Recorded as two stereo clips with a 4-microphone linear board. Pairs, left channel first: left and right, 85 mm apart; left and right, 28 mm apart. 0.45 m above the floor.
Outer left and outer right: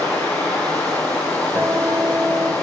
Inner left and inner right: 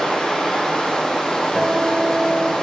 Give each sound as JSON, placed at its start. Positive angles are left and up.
{"t": 0.0, "sound": "running water", "side_deg": 15, "distance_m": 7.0}
{"t": 1.6, "sound": "a guitar", "side_deg": -25, "distance_m": 1.2}